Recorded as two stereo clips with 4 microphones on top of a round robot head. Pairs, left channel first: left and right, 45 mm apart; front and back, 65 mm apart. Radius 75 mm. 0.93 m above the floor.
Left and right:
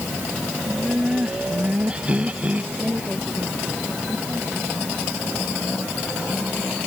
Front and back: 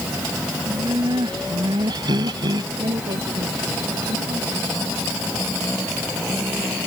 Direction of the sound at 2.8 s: 170° right.